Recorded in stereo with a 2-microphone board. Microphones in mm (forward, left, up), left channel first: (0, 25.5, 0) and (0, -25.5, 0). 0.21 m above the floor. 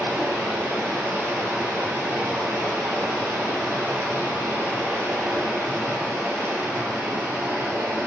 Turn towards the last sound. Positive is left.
turn(degrees=-55)  # may be behind; listen again after turning